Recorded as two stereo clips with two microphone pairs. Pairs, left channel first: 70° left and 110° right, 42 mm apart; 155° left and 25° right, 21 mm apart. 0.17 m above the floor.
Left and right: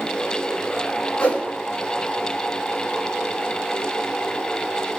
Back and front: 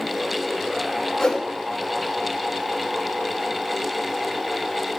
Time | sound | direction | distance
1.2 | a whoosh | 115° left | 1.8 m